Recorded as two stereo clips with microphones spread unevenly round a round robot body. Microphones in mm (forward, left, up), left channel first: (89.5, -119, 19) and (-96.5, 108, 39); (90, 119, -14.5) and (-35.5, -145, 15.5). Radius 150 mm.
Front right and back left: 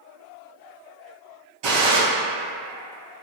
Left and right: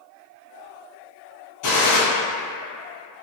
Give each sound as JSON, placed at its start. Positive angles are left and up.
{"t": 1.6, "sound": "a gunshot", "azimuth_deg": 100, "distance_m": 1.4}